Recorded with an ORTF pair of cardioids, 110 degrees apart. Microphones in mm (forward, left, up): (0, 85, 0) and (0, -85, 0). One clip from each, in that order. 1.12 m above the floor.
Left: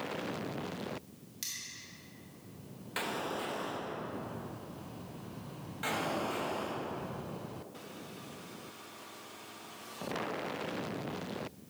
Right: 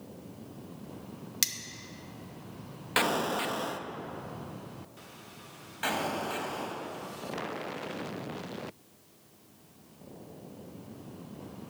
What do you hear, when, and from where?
1.4 s cutlery clinking: 70° right, 0.8 m
3.0 s an explosion: 45° right, 0.5 m
5.8 s an explosion: 30° right, 1.4 m